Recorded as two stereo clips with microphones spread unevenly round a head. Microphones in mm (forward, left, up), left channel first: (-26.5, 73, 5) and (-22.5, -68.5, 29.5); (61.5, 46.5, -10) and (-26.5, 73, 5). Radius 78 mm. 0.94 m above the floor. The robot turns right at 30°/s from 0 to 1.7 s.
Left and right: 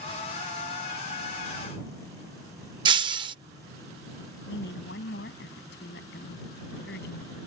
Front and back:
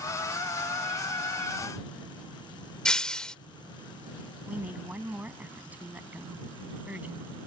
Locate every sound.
2.9 s breaking glass: 110° right
4.5 s a woman speaking: 90° left